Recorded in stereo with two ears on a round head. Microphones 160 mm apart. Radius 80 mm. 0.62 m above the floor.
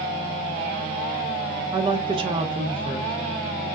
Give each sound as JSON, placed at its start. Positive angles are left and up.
{"t": 1.7, "sound": "a woman speaking", "side_deg": -30, "distance_m": 0.9}